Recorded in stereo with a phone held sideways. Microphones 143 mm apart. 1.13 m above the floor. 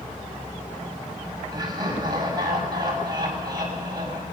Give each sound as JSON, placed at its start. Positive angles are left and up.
{"t": 1.5, "sound": "laughter", "side_deg": -30, "distance_m": 6.5}